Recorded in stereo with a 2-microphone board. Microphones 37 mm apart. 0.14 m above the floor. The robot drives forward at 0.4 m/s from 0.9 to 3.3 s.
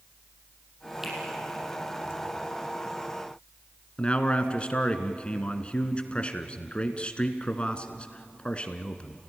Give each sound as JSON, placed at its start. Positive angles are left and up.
{"t": 1.0, "sound": "a finger snap", "side_deg": -10, "distance_m": 5.5}
{"t": 4.0, "sound": "a man speaking", "side_deg": 30, "distance_m": 1.7}